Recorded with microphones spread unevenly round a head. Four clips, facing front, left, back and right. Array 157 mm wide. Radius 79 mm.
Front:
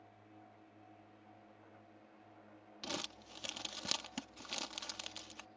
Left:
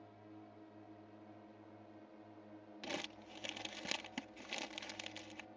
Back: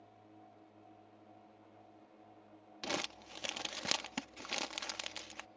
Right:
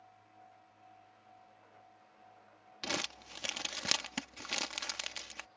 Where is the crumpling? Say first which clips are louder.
Right 6 dB, back 5 dB; 165° right.